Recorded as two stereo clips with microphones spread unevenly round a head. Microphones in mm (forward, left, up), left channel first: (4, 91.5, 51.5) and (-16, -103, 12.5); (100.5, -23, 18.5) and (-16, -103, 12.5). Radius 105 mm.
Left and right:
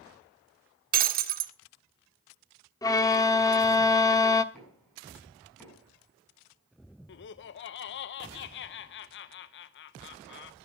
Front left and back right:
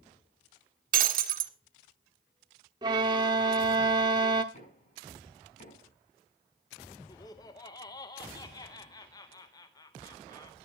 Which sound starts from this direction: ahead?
Knocking, at 4.5 s.